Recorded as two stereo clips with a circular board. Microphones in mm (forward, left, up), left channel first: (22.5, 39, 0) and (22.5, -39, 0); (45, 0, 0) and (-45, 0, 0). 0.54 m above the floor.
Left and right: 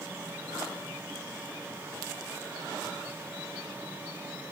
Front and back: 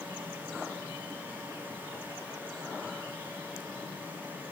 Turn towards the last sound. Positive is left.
No sound to turn to.